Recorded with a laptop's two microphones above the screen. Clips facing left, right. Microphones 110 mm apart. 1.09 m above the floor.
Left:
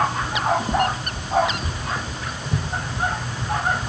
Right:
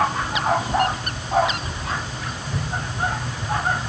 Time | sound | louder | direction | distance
0.2 | footsteps | even | 30° left (ahead or behind) | 1.5 m